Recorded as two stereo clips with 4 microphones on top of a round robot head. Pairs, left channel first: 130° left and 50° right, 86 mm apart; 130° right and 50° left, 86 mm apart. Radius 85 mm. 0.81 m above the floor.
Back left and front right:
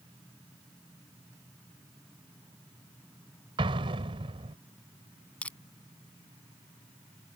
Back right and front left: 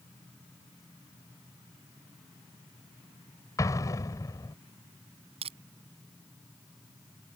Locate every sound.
3.6 s an explosion: 80° right
5.4 s crushing: 55° left